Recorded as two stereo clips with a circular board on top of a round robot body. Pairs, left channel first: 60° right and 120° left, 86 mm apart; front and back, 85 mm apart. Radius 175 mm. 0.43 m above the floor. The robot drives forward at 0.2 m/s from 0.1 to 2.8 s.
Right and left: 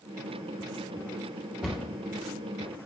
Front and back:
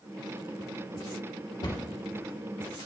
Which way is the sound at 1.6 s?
35° left.